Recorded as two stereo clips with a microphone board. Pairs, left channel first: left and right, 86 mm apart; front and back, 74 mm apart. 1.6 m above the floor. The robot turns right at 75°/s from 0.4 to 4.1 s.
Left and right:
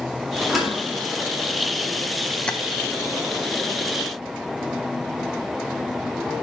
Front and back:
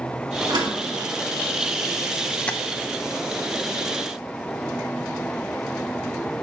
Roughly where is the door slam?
Behind.